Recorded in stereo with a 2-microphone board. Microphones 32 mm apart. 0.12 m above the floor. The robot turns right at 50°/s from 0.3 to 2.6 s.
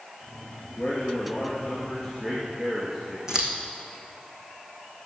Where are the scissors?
20° right (ahead or behind), 1.7 m.